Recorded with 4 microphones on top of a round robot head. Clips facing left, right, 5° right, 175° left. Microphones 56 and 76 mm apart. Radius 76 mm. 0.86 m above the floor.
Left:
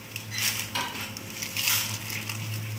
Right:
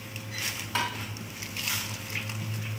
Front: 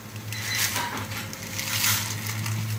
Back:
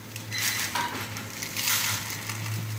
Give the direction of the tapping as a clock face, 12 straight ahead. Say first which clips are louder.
Right 4 dB, back 3 dB; 5 o'clock.